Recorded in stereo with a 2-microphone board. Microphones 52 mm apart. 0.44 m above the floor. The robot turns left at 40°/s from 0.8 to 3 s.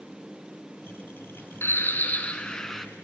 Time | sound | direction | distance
1.6 | a bird | 50° left | 2 m